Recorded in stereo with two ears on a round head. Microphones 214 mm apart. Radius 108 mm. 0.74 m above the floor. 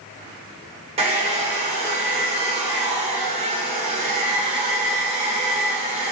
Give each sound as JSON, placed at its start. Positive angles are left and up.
{"t": 1.0, "sound": "a hair dryer", "side_deg": -25, "distance_m": 0.6}